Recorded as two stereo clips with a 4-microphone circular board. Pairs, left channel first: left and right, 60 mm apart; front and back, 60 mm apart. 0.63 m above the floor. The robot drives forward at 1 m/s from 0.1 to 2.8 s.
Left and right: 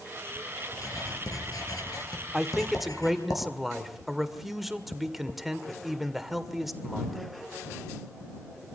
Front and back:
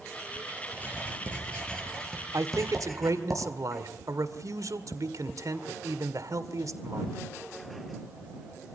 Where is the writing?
65° left, 5.5 m; by 3.3 s 85° left, 5 m.